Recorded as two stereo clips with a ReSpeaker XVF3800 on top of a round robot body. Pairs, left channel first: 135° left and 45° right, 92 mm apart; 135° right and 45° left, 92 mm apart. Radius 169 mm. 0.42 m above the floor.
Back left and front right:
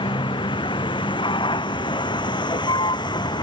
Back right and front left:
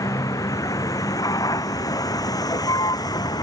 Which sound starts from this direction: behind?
A vehicle, at 0.0 s.